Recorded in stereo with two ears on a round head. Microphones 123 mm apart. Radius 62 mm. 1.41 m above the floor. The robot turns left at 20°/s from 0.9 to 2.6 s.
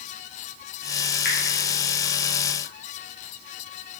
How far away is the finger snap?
About 1.3 m.